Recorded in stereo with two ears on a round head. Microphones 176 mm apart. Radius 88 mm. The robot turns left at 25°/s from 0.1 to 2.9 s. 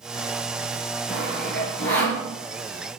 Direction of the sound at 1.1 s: 10° right (ahead or behind).